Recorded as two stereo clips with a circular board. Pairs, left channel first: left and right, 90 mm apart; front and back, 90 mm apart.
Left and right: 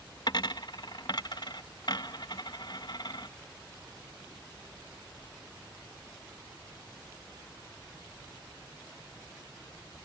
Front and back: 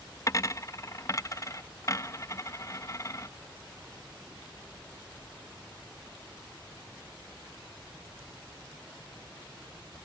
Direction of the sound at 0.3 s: 55° left.